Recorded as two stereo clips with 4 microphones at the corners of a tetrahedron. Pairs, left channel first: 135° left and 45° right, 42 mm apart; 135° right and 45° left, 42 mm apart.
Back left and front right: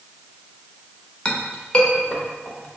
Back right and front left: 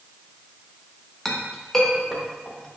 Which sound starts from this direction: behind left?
A clink, at 1.2 s.